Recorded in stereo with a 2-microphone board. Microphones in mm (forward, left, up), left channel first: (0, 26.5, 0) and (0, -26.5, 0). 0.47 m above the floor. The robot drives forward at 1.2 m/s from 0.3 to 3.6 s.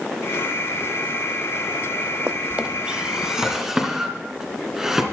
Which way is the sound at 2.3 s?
45° right (ahead or behind).